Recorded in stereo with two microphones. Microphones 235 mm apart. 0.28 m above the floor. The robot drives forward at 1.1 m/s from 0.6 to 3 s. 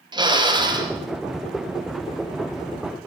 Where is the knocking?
No knocking in this recording.